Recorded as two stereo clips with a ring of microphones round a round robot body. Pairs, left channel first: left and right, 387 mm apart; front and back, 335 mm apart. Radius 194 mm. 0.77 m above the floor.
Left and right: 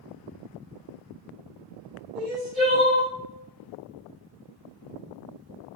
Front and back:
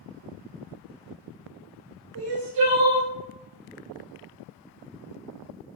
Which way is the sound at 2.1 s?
160° right.